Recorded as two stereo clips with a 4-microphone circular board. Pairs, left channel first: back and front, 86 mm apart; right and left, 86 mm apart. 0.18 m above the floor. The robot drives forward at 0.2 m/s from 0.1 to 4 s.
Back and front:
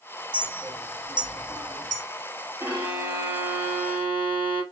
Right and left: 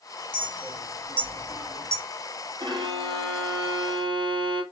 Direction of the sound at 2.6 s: 65° left.